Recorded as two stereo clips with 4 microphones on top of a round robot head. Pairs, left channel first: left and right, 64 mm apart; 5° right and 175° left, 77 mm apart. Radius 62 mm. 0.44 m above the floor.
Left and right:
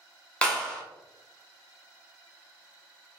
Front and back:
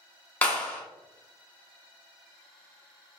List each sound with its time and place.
0.4 s a clap: 40° left, 0.9 m